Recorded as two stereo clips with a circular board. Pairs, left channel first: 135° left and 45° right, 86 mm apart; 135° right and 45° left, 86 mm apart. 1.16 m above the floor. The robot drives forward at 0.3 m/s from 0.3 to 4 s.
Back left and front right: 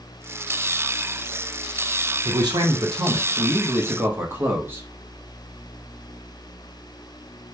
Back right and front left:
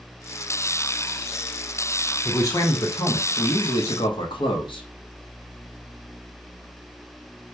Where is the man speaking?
80° right, 0.9 m; by 4.8 s 110° right, 0.9 m.